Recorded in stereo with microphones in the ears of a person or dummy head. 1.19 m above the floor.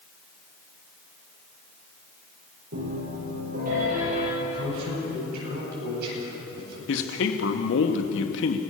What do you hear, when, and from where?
2.7 s a piano: 50° right (ahead or behind), 10 m
4.4 s a man speaking: 60° right (ahead or behind), 9.5 m
6.9 s a man speaking: 70° left (ahead or behind), 2.5 m